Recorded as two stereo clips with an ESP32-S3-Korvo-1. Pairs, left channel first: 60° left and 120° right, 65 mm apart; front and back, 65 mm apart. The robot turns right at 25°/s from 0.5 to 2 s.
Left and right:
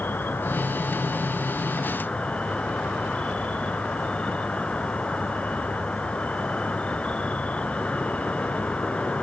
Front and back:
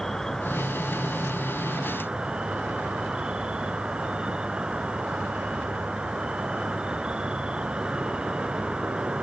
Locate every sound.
0.0 s an insect: 75° left, 1.4 m; by 9.2 s 115° left, 1.4 m